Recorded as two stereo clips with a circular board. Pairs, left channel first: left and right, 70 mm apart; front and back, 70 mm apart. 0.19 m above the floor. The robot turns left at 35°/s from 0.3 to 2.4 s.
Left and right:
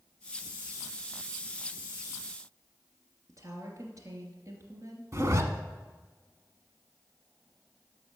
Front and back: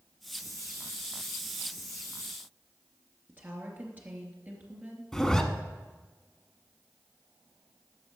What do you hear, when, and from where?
3.3 s a woman speaking: 120° right, 2.5 m
5.1 s a zipper: 80° right, 1.0 m